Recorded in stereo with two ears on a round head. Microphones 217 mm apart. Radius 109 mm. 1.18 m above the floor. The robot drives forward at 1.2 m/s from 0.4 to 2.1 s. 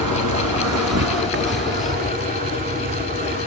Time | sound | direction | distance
0.0 | an insect | 90° right | ?